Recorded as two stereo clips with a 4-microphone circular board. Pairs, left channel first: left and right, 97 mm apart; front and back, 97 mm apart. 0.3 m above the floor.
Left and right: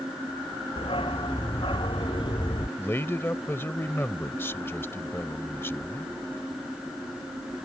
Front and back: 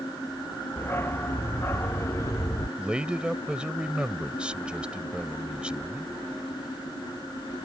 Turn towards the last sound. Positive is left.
turn(degrees=115)